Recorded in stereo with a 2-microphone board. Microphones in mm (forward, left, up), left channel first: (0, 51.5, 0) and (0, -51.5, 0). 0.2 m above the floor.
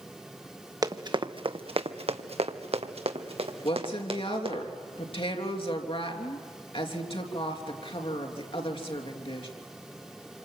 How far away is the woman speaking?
About 3 m.